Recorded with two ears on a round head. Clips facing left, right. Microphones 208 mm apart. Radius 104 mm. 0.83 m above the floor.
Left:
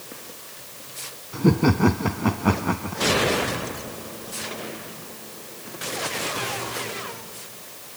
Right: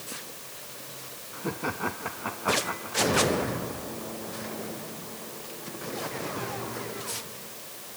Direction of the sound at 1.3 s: 60° left (ahead or behind).